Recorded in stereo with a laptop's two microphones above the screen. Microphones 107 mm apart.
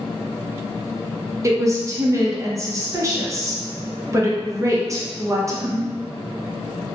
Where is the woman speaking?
30° right (ahead or behind), 0.7 m.